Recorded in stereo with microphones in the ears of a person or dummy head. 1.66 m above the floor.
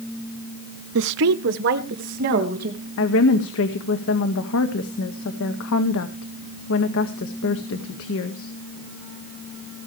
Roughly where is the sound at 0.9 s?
Right.